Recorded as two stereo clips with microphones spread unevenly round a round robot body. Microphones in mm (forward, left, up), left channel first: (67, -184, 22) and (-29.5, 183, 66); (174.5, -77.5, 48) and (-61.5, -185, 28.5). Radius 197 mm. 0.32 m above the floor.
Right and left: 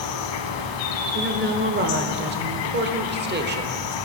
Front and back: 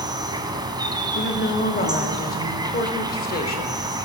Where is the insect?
80° right, 1.2 m.